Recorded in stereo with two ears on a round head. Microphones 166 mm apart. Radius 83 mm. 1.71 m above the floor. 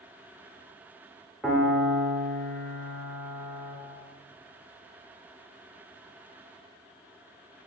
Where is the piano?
5° left (ahead or behind), 0.6 m.